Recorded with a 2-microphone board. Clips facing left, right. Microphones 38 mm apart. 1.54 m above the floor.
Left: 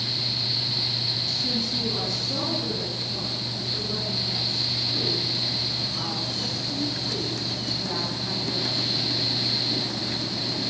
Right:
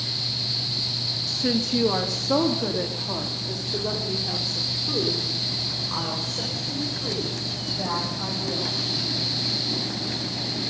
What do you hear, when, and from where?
1.3 s a woman speaking: 65° right (ahead or behind), 1.8 m; by 8.8 s 90° right, 9 m